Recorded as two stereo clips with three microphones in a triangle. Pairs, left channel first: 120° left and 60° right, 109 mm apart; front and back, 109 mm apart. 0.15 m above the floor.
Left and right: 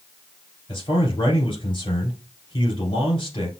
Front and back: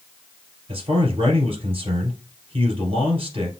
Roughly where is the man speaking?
Behind.